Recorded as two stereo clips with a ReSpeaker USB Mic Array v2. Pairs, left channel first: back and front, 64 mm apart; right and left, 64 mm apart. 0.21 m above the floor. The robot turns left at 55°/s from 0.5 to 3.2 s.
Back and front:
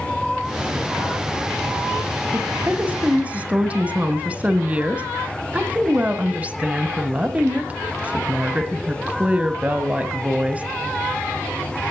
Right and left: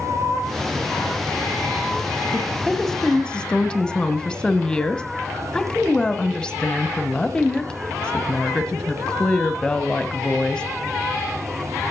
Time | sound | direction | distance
2.3 | a woman speaking | 15° left | 1.5 m